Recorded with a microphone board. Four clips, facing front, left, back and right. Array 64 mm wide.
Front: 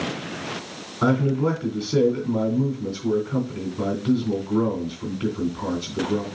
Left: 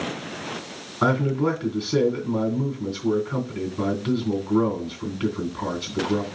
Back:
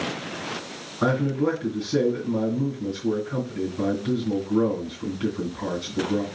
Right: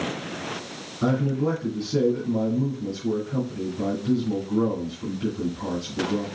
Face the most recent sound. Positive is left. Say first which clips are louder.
# left 2 dB, front 2 dB
turn(degrees=80)